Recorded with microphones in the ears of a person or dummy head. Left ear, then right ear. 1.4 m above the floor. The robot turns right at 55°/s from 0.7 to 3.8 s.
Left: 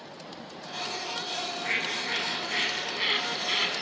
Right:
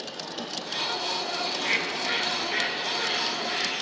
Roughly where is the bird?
Ahead right.